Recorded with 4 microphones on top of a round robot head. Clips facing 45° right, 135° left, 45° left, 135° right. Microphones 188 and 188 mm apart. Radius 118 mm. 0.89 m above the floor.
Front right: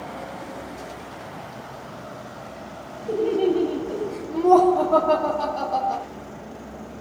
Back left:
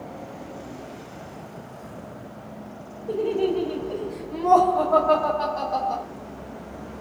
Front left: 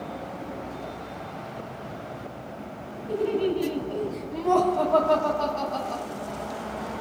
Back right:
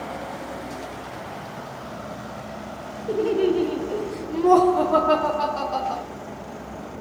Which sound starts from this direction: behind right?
Laughter, at 3.1 s.